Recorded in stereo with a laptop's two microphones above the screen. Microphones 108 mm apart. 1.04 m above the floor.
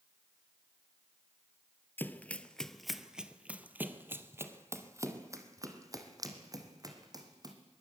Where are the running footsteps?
20° left (ahead or behind), 1.0 m; by 7.5 s 35° right (ahead or behind), 3 m.